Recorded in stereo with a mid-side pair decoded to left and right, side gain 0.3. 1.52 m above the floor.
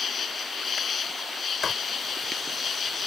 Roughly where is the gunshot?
I don't hear a gunshot.